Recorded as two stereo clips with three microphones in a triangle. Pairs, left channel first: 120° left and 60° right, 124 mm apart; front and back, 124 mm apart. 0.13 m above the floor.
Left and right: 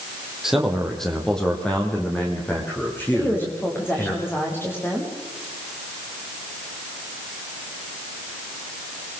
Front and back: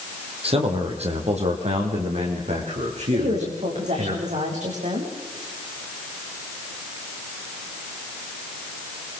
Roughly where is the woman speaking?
Behind.